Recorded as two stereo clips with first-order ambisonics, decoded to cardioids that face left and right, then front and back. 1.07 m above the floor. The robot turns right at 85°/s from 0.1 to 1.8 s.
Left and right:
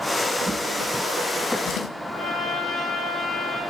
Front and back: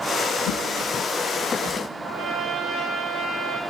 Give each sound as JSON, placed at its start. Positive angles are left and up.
{"t": 0.5, "sound": "a drawer", "azimuth_deg": -10, "distance_m": 2.5}
{"t": 2.0, "sound": "a trumpet", "azimuth_deg": 175, "distance_m": 6.0}